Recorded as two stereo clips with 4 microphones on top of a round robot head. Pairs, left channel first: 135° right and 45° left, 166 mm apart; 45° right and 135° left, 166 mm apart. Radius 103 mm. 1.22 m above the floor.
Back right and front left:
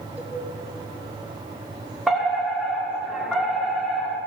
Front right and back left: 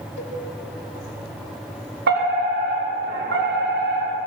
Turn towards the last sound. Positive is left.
turn(degrees=135)